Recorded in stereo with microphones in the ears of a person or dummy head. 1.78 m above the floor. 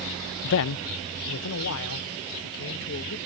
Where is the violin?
I don't hear a violin.